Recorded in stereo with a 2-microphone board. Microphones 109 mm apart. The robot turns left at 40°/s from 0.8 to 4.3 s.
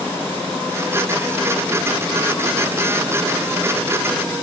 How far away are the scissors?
I don't hear scissors.